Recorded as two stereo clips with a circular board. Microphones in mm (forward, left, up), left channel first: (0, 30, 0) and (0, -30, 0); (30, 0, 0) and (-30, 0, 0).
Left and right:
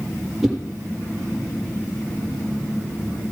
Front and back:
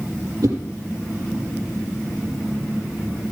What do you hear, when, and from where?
0.4 s a whoosh: 175° right, 4.5 m